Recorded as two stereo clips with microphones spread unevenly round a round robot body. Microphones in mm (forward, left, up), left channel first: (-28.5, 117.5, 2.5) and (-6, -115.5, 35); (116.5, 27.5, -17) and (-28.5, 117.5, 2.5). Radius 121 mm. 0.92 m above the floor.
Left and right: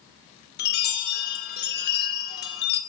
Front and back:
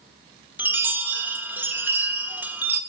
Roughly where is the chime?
Ahead left.